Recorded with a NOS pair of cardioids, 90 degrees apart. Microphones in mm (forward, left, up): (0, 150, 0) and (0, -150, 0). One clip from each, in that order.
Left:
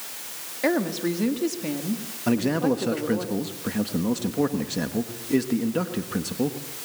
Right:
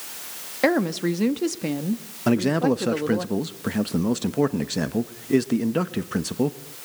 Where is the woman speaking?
45° right, 1.8 m.